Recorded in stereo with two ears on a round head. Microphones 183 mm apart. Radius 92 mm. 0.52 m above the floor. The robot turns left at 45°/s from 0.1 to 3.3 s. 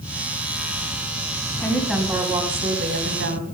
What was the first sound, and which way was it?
A woman speaking, 15° left.